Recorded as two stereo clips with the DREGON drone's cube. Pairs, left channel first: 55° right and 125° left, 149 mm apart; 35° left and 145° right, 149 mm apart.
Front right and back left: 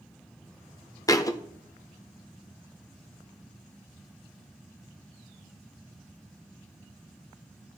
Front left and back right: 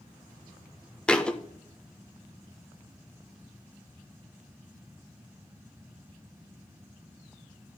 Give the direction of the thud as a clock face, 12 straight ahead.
1 o'clock.